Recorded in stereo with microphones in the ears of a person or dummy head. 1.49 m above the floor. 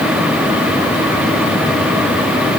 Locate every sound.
Only background noise.